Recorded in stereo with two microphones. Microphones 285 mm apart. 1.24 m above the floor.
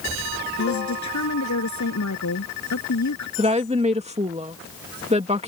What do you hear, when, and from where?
0.6 s a woman speaking: 80° left
3.4 s a woman speaking: 25° right (ahead or behind)